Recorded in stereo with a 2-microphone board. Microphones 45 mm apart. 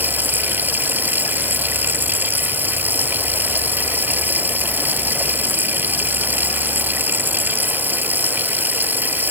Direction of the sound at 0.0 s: 40° right (ahead or behind).